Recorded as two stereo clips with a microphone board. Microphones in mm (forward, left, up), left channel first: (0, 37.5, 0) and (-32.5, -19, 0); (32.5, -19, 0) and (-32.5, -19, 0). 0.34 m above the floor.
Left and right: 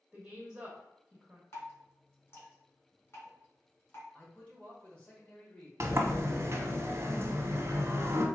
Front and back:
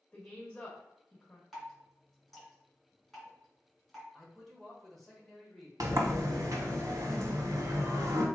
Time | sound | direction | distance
0.1 | a woman speaking | 65° right | 0.9 m
1.5 | dripping | 90° left | 1.9 m
4.1 | a man speaking | 80° left | 1.2 m
5.8 | a sliding door | 160° right | 0.8 m